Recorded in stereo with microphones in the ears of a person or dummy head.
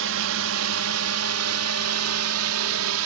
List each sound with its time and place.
0.0 s a drone: 70° right (ahead or behind)